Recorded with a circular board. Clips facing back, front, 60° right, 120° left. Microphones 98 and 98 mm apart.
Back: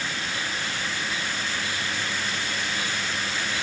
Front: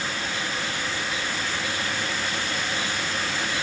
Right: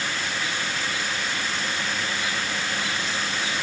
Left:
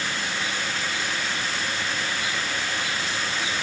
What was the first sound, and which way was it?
Only background noise.